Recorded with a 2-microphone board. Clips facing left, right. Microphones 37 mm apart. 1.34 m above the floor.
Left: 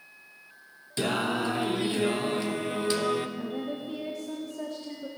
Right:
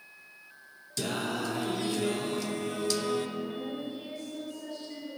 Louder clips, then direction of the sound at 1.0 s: Left 5 dB; 25° left (ahead or behind).